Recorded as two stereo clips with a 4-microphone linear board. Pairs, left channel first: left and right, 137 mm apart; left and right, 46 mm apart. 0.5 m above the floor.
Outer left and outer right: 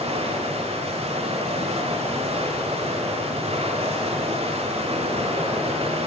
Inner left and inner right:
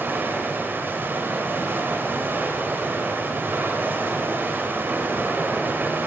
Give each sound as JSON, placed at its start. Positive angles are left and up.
{"t": 0.0, "sound": "running water", "side_deg": -45, "distance_m": 1.1}